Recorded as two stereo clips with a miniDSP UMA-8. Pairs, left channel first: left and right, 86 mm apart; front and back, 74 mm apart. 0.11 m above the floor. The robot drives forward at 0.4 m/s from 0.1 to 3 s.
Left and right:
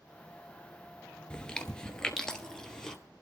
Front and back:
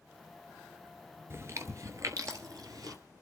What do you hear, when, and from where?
1.3 s chewing: 165° left, 0.9 m; by 3.0 s 170° left, 1.5 m